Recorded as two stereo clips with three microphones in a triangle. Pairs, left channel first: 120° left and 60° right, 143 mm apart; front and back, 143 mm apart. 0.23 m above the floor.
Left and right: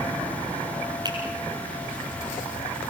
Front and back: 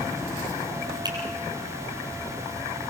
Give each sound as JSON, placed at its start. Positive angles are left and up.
{"t": 1.1, "sound": "a finger snap", "azimuth_deg": -120, "distance_m": 5.0}